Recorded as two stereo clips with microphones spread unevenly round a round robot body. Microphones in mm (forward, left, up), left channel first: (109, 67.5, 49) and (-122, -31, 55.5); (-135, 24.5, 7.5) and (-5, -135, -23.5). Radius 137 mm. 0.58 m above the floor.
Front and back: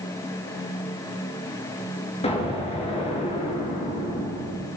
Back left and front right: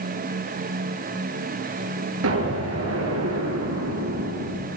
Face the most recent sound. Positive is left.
turn(degrees=-45)